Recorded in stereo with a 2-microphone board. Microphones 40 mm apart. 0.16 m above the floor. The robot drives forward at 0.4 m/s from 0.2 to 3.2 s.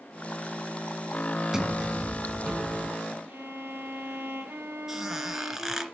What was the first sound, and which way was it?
A sliding door, 15° right (ahead or behind).